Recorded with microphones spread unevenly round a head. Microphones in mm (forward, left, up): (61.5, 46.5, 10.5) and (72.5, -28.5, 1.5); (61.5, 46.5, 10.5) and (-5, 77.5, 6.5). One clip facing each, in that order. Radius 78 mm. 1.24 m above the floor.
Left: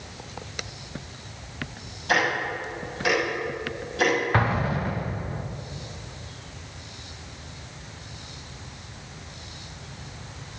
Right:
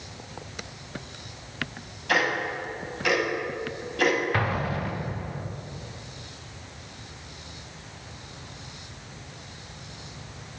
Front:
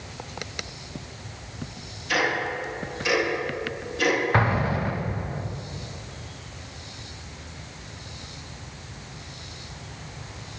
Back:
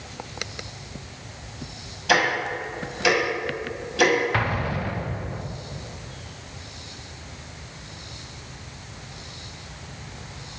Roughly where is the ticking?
Behind.